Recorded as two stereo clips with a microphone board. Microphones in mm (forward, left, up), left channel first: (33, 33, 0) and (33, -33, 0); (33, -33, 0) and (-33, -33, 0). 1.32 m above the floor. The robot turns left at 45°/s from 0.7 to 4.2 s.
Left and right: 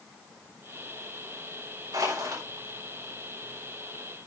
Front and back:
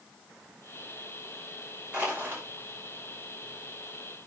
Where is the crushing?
105° right, 5.5 m; by 2.4 s 130° right, 5.5 m.